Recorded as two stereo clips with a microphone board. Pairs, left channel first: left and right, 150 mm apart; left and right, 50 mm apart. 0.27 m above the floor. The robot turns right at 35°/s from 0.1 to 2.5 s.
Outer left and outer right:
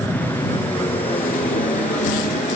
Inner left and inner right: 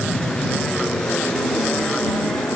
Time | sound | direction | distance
0.0 | an aircraft | 15° left | ?